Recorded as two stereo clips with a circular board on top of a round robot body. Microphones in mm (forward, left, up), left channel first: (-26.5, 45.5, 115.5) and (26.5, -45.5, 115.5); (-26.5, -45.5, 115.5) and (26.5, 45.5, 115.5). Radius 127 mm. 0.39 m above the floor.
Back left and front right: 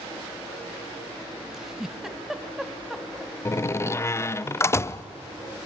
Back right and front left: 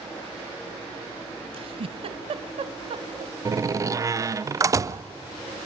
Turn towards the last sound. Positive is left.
turn(degrees=80)